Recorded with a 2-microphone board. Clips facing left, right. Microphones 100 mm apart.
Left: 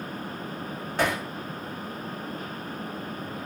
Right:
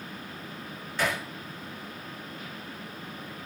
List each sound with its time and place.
1.0 s hammering: 55° left (ahead or behind), 7 m